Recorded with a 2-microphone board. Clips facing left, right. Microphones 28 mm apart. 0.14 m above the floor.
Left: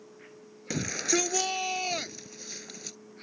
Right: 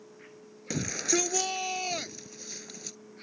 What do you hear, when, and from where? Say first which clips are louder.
0.7 s a shout: left 1 dB; 5° left (ahead or behind)